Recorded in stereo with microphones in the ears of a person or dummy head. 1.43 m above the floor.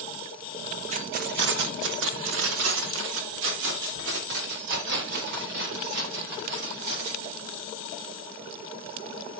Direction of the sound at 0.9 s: 40° right (ahead or behind).